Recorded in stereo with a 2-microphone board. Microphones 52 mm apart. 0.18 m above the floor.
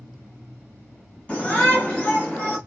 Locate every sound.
1.3 s a shout: 25° left (ahead or behind), 1.5 m